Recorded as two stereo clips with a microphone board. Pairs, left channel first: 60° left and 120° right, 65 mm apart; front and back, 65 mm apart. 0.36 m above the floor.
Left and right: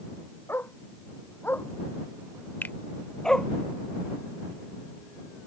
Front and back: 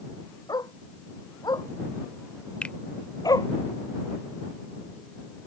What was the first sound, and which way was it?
A dog barking, 5° left.